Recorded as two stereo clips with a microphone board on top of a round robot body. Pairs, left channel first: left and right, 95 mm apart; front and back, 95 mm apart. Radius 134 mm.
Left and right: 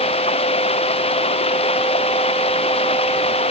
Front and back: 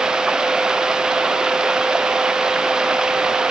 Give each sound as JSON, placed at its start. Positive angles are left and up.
{"t": 0.0, "sound": "running water", "azimuth_deg": 100}